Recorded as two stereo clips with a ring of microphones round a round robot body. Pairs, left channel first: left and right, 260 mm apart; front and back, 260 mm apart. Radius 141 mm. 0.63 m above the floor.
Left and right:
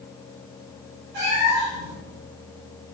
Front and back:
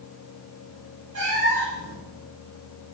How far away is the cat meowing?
About 5.5 m.